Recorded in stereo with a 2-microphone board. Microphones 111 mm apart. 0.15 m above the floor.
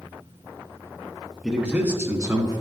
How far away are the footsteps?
I don't hear footsteps.